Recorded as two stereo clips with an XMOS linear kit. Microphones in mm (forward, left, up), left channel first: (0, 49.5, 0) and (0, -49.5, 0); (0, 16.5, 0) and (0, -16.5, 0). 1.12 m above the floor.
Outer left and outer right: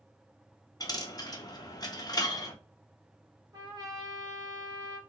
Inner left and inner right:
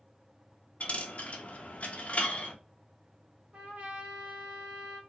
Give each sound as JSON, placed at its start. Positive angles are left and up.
{"t": 0.8, "sound": "a dropped coin", "side_deg": 40, "distance_m": 0.6}
{"t": 3.5, "sound": "a trumpet", "side_deg": -40, "distance_m": 1.4}